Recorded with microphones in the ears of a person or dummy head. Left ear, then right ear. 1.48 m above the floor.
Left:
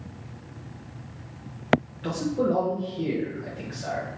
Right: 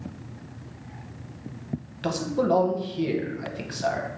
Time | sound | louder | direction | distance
2.0 | a man speaking | right 1 dB | 45° right (ahead or behind) | 0.8 m